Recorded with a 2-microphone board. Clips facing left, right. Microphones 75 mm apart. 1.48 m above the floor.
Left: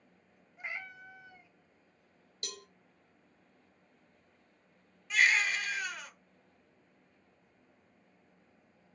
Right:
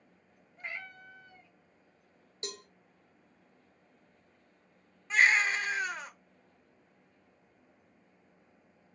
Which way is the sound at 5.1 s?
30° right (ahead or behind).